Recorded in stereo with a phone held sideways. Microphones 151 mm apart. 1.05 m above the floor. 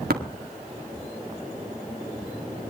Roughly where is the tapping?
Right.